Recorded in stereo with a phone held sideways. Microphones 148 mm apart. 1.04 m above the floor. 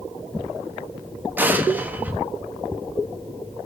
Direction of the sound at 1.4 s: 10° right (ahead or behind).